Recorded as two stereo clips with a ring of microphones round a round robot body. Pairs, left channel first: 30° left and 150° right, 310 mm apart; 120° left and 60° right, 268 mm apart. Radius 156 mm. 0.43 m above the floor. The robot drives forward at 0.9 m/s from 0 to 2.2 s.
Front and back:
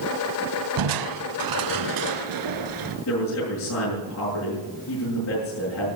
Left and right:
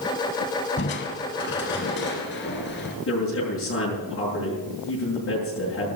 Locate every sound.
0.8 s crushing: straight behind, 0.8 m
3.1 s a man speaking: 75° left, 7 m